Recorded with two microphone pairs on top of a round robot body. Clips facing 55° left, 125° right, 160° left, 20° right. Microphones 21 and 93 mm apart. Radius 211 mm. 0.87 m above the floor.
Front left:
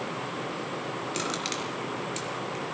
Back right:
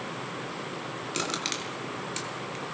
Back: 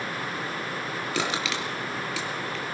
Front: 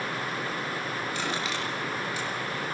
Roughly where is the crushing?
Behind.